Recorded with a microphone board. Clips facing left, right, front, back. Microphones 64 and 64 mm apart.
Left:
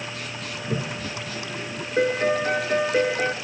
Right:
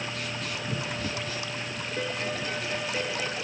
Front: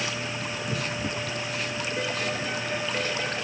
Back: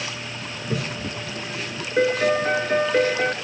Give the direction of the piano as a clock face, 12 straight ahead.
8 o'clock.